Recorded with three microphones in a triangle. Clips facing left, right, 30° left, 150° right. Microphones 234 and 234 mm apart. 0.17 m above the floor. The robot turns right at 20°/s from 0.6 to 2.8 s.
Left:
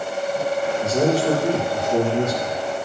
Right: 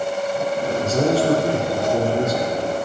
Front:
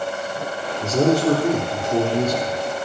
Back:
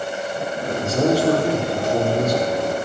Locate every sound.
0.8 s a man speaking: 10° left, 3 m; by 2.6 s 45° left, 3 m